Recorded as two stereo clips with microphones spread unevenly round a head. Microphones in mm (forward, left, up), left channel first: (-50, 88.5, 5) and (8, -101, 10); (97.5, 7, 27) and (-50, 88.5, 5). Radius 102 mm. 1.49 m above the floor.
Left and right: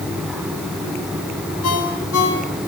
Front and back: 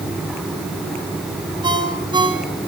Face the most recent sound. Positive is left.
turn(degrees=85)